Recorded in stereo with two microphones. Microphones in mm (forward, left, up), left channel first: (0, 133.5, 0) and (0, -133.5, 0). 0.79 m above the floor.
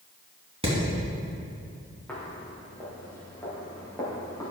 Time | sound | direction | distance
0.6 | hammering | 20° right (ahead or behind) | 2.5 m
2.1 | footsteps | 5° left (ahead or behind) | 3.5 m